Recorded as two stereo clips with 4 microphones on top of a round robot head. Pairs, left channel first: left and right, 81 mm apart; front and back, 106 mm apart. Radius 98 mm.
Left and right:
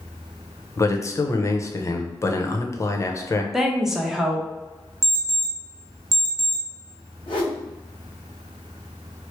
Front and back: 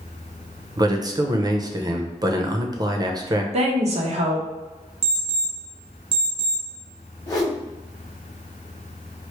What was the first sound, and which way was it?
A man speaking, 135° left.